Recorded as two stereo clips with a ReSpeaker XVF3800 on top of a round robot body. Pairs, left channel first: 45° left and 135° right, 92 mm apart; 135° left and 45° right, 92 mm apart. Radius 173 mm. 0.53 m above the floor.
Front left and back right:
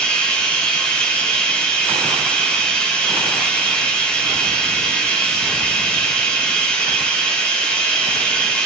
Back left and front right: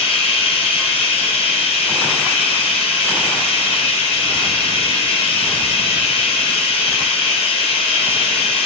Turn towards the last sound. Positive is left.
turn(degrees=120)